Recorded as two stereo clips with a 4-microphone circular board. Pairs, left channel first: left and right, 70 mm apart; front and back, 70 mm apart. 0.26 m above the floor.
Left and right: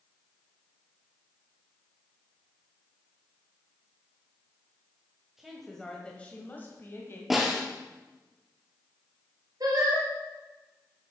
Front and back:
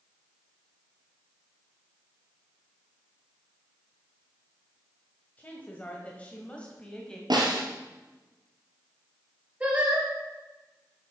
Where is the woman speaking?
15° right, 1.4 m; by 7.2 s 75° left, 1.7 m.